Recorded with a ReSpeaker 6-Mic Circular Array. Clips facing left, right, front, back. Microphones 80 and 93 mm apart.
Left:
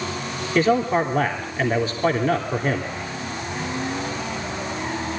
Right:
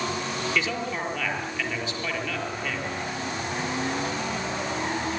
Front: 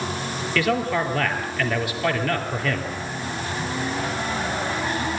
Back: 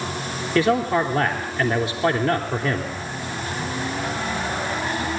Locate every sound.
0.6 s a man speaking: 125° left, 2.5 m